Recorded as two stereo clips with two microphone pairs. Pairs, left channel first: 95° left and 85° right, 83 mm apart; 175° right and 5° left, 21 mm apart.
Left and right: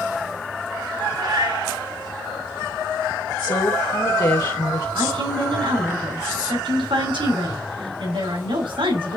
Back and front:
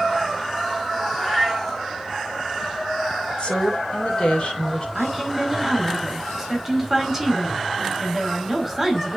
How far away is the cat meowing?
About 3 m.